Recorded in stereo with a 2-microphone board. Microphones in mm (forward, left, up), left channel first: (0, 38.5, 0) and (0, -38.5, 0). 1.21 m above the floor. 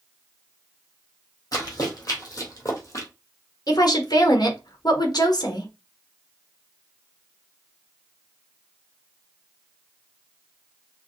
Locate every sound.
1.5 s running footsteps: 50° left (ahead or behind), 3 m; by 3.1 s 40° left (ahead or behind), 2.0 m
3.7 s a woman speaking: 60° left (ahead or behind), 1.3 m